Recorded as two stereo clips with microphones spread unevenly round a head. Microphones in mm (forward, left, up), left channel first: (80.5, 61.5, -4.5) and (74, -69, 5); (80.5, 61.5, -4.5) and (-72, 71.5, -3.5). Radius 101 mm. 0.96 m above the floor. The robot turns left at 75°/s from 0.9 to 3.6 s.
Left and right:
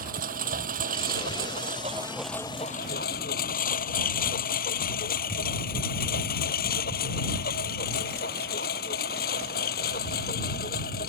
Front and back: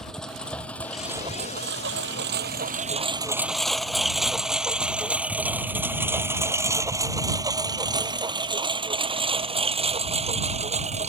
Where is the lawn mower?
90° right; by 11.1 s 130° left.